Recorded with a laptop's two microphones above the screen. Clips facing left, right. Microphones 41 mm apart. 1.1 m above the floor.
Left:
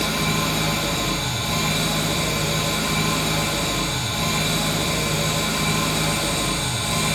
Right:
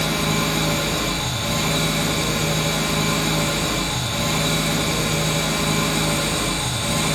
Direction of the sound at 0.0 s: 80° right.